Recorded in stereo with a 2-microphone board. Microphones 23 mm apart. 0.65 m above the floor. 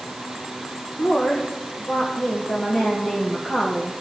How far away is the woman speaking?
About 2.5 m.